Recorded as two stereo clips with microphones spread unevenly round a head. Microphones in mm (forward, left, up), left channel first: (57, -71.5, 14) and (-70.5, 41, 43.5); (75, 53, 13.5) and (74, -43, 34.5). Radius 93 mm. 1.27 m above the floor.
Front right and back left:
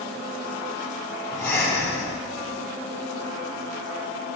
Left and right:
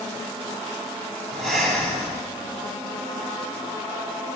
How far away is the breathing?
About 6.5 m.